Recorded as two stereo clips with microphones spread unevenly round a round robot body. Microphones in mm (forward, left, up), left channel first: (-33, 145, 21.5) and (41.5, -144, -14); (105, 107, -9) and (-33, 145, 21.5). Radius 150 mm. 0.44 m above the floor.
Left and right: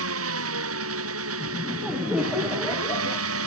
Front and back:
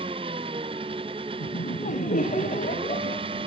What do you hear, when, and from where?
0.0 s an engine running: 120° right
1.4 s laughter: 10° left